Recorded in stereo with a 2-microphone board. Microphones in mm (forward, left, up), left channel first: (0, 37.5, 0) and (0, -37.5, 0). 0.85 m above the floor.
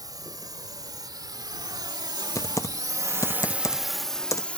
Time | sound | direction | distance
0.0 | a drone | 55° right (ahead or behind) | ?
2.4 | typing on a keyboard | 45° left (ahead or behind) | ?